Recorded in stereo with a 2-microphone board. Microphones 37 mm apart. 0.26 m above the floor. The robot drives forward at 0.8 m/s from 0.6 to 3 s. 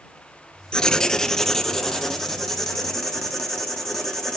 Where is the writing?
20° left (ahead or behind), 0.7 m; by 4.4 s 5° left (ahead or behind), 2.5 m.